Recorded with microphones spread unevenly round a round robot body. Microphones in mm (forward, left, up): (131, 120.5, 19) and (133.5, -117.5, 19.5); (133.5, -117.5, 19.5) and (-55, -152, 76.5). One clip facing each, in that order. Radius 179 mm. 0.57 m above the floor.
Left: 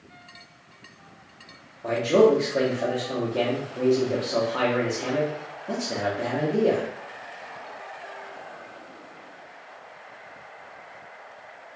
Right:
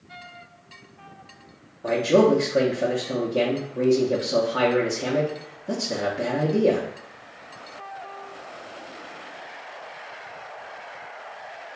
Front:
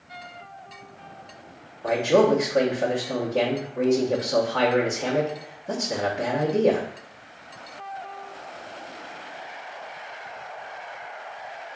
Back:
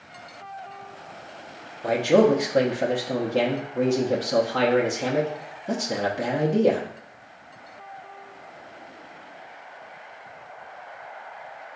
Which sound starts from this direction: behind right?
A man speaking, at 1.8 s.